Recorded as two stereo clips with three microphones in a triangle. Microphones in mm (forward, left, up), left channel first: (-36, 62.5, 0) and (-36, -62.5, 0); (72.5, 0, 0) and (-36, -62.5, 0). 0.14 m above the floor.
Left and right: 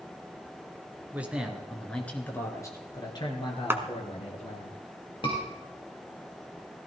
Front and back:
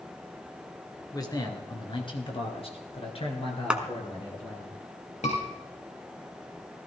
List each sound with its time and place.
1.1 s a man speaking: 20° right, 2 m; by 4.7 s 70° left, 3 m
3.7 s a clap: 85° right, 1.0 m
5.2 s a scream: 45° left, 3 m